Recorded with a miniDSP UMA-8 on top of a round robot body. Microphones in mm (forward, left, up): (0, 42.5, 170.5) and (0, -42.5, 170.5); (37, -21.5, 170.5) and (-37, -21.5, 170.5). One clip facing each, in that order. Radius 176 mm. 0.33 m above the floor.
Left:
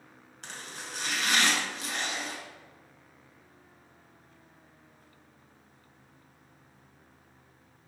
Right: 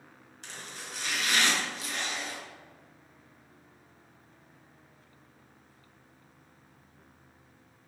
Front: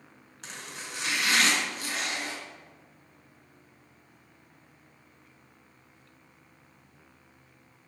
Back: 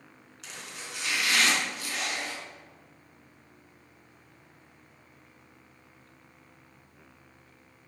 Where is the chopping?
55° left, 3 m.